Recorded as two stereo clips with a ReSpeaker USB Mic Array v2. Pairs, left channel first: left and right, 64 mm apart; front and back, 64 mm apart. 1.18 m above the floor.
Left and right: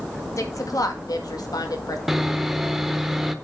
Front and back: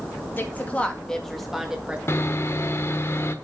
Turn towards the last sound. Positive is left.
turn(degrees=-5)